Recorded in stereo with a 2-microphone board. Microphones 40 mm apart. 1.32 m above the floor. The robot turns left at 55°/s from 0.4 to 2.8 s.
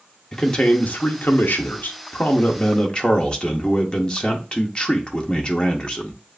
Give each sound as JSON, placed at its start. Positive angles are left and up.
{"t": 0.3, "sound": "a man speaking", "azimuth_deg": 165, "distance_m": 0.9}